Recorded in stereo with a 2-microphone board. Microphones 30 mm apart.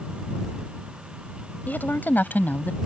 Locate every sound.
1.7 s a woman speaking: 80° left; by 2.8 s 75° left (ahead or behind)